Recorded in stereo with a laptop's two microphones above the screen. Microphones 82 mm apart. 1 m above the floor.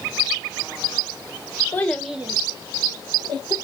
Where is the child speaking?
20° left (ahead or behind), 0.5 m; by 3.5 s 65° right (ahead or behind), 1.1 m.